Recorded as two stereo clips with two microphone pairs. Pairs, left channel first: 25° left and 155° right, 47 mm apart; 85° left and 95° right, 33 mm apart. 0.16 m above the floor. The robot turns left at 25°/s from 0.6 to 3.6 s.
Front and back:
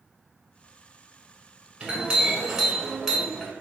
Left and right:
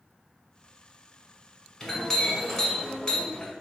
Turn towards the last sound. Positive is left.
turn(degrees=115)